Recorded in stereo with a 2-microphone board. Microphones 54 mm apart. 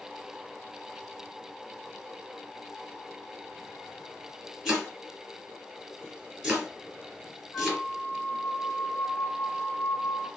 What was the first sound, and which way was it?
Chopping, 5° right (ahead or behind).